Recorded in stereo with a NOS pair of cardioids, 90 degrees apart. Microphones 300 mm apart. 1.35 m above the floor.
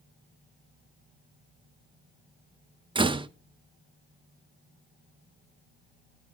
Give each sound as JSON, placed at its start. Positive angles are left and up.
{"t": 3.0, "sound": "a door slam", "azimuth_deg": -15, "distance_m": 0.8}